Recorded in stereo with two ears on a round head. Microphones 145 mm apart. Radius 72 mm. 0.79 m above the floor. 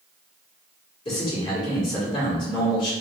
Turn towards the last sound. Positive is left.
turn(degrees=35)  # may be behind; listen again after turning